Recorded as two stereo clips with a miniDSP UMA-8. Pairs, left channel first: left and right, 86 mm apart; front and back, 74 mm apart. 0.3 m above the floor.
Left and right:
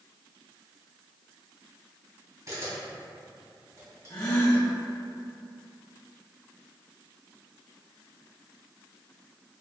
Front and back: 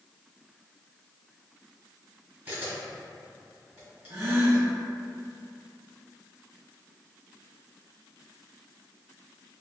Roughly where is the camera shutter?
Behind right.